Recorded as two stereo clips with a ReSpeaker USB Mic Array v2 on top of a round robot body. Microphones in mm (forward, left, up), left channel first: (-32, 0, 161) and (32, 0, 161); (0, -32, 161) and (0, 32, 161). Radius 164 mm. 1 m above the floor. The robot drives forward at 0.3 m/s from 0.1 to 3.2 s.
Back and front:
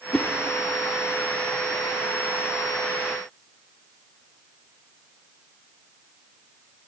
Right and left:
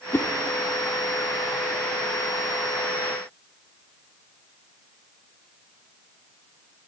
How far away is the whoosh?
About 0.9 m.